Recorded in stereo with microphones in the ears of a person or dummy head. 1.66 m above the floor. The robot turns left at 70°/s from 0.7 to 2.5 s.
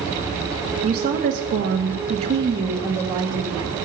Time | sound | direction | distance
0.8 | a woman speaking | 40° right | 1.3 m